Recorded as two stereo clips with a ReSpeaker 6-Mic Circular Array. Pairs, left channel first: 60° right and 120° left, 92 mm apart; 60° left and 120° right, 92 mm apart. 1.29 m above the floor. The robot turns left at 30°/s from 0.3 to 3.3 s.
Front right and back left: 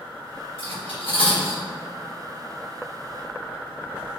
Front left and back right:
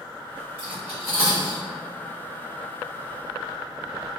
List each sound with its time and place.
0.6 s cutlery clinking: 40° right, 1.7 m; by 1.6 s 70° right, 1.7 m